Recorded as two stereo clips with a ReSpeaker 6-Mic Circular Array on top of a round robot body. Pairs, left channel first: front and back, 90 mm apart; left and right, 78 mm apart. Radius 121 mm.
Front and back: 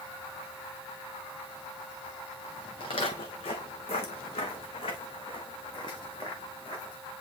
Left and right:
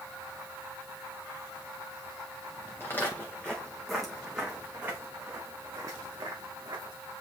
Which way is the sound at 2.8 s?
25° left.